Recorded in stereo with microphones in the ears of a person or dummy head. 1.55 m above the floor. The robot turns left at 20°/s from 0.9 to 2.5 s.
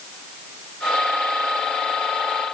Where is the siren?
I don't hear a siren.